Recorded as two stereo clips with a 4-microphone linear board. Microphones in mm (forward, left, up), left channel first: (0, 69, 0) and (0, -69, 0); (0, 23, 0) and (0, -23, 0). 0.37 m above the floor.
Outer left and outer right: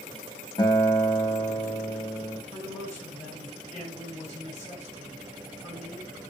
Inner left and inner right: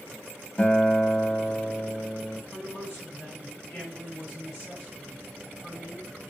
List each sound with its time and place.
0.6 s a guitar: 30° left (ahead or behind), 0.8 m
2.5 s a man speaking: 55° left (ahead or behind), 2.5 m